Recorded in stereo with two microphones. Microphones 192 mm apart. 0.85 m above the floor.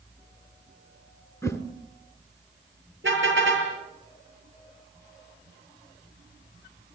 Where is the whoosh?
15° left (ahead or behind), 1.9 m.